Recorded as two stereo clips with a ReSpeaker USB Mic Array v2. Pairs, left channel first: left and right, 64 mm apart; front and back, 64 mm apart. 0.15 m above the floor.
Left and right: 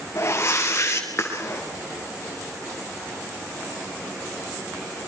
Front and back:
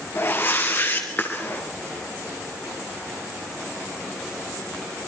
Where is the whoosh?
45° left, 3.5 m.